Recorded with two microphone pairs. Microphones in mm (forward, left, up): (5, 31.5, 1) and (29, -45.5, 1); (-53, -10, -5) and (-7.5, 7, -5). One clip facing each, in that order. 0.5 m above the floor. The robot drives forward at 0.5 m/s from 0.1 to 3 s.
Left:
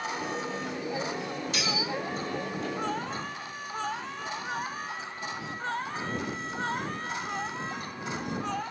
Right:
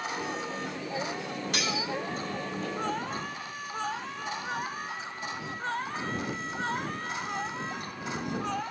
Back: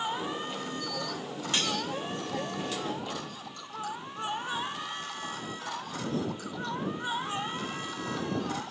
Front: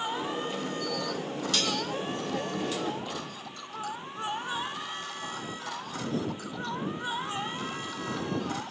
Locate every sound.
1.5 s cutlery clinking: 100° right, 1.0 m; by 1.8 s 110° right, 1.0 m